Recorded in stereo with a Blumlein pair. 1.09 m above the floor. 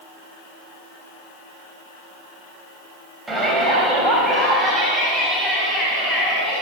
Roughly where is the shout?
Ahead.